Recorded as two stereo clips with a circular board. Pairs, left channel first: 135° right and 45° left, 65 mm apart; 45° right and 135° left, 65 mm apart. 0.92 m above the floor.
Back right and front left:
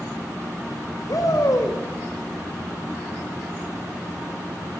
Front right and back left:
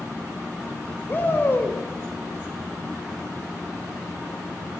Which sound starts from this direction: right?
A shout, at 1.1 s.